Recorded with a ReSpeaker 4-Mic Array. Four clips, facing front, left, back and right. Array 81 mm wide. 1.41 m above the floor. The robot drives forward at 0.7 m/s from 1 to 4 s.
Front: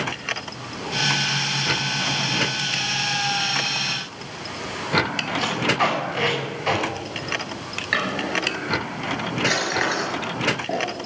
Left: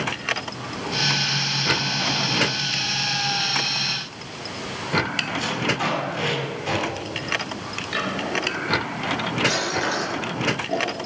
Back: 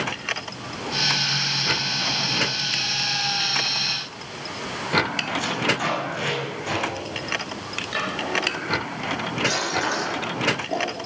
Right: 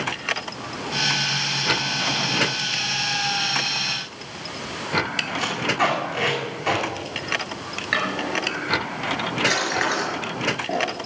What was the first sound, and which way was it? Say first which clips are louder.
Tape being pulled: right 3 dB, front 4 dB; 65° right.